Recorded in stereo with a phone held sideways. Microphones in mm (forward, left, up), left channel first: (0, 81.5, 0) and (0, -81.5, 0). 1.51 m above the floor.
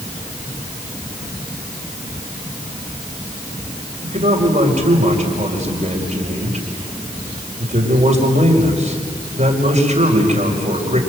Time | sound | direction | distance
4.0 | a man speaking | 50° right (ahead or behind) | 4.5 m